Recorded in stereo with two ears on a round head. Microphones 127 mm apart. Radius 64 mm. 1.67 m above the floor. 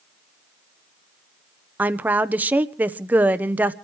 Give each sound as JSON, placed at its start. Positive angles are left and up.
{"t": 1.8, "sound": "a woman speaking", "side_deg": -10, "distance_m": 0.8}